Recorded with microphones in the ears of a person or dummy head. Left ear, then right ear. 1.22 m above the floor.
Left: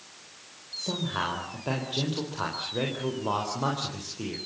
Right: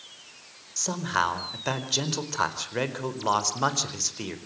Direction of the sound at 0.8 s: 70° right (ahead or behind).